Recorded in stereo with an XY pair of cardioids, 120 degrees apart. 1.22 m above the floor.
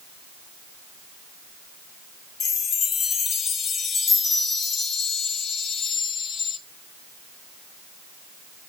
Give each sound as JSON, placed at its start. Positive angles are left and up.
{"t": 2.4, "sound": "a chime", "azimuth_deg": 50, "distance_m": 1.1}